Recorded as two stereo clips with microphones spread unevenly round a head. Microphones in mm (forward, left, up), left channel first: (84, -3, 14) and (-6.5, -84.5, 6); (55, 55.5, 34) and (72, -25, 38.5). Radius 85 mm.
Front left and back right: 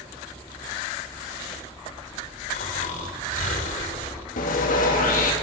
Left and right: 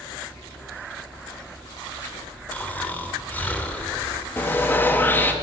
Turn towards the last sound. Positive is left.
turn(degrees=35)